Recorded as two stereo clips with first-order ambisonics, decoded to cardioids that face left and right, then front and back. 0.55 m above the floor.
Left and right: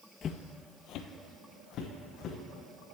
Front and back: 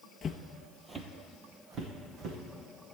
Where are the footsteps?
50° left, 0.6 m; by 2.4 s 135° left, 1.9 m.